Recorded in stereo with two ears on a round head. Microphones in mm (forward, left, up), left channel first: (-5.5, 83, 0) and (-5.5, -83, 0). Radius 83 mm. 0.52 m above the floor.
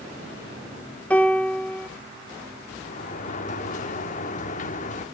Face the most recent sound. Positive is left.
turn(degrees=40)  # may be behind; listen again after turning